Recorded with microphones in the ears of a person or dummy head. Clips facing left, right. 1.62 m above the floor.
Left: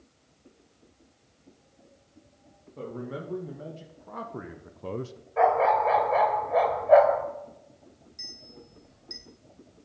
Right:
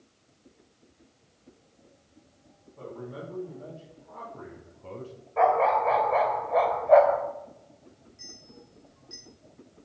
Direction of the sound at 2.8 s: 80° left.